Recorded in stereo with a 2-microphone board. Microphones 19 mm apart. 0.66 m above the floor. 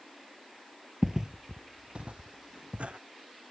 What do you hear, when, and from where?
1.0 s footsteps: 10° right (ahead or behind); by 3.0 s 75° right (ahead or behind)